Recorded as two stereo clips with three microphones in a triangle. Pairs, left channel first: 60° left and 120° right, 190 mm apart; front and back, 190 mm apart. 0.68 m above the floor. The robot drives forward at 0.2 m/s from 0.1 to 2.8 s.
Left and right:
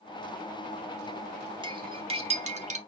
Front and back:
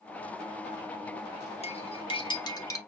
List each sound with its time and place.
1.6 s cutlery clinking: 55° right, 0.8 m; by 2.8 s 70° right, 0.7 m